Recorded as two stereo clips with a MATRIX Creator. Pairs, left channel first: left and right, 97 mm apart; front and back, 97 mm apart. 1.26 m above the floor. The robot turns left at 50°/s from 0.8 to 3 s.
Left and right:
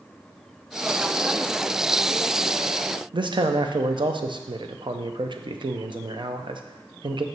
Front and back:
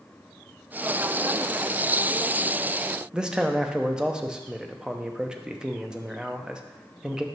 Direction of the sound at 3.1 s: 100° right.